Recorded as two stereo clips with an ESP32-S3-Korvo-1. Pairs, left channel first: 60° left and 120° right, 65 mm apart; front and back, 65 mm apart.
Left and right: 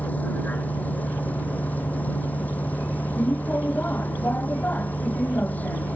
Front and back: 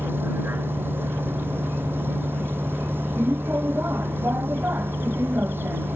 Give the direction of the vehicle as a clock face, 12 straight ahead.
8 o'clock.